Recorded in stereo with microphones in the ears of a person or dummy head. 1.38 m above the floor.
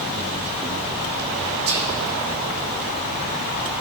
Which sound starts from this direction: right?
Whispering, at 1.7 s.